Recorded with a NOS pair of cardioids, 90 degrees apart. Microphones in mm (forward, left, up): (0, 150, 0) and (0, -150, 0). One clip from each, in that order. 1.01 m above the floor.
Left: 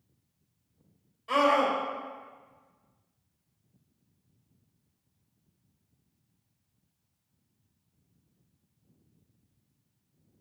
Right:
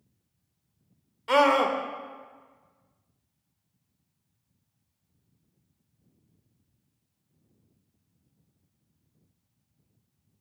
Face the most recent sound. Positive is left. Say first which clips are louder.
# right 3 dB
turn(degrees=-70)